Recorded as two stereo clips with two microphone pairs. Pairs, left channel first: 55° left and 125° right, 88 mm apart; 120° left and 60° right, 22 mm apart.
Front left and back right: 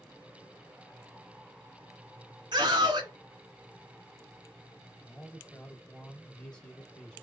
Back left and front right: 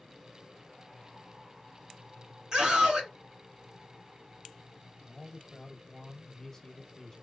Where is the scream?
110° right, 2 m.